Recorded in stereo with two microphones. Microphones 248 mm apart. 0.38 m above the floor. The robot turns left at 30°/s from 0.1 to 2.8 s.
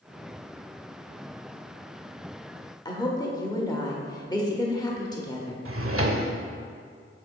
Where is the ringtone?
No ringtone in this recording.